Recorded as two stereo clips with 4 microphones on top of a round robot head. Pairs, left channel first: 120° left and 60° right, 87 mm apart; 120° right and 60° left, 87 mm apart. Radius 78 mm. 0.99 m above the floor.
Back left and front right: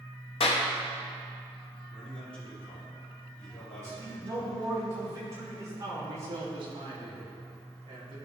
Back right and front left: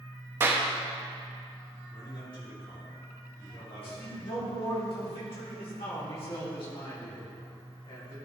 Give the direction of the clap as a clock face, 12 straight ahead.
8 o'clock.